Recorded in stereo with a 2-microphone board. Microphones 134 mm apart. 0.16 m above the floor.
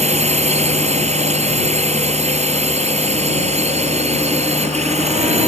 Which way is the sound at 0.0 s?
55° right (ahead or behind).